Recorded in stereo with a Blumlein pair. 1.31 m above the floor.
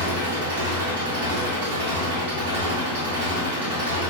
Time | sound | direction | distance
0.0 | an engine running | 55° right | 1.4 m